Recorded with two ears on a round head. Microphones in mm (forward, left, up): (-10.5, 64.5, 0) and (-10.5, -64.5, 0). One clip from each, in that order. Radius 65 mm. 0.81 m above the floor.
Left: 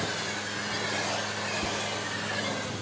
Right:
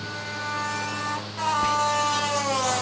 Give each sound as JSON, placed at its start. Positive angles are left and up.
{"t": 1.6, "sound": "whispering", "side_deg": -55, "distance_m": 0.8}